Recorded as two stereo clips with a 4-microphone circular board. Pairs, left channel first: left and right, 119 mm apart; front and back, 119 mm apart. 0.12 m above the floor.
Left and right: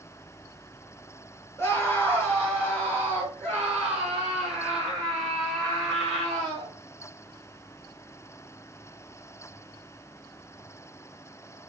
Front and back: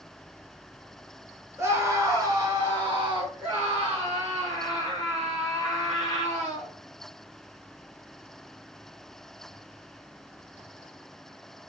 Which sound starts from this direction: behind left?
A scream, at 1.6 s.